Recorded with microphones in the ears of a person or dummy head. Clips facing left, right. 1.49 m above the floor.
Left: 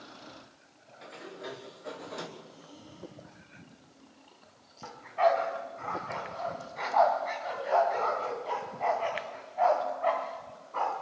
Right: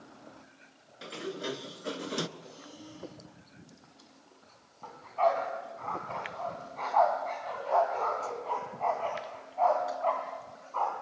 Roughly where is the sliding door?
Right.